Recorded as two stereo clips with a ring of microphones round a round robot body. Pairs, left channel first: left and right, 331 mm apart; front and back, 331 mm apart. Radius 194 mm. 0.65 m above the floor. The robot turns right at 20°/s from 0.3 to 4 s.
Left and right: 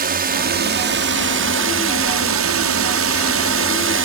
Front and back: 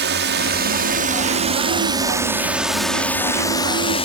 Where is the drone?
140° right; by 4.1 s 65° right.